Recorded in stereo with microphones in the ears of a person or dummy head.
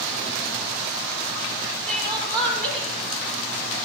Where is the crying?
Centre (ahead or behind), 5.5 m.